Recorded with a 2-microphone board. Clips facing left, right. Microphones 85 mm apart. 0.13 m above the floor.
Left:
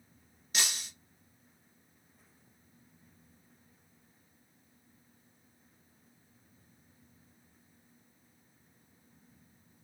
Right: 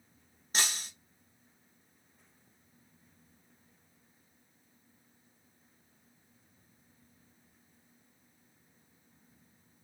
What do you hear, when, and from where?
0.5 s breaking glass: 40° right (ahead or behind), 0.9 m